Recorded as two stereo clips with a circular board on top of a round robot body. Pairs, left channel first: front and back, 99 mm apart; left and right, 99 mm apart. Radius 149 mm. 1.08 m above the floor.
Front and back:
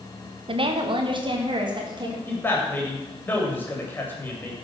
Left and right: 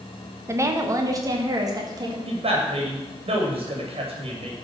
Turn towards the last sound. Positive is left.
turn(degrees=-70)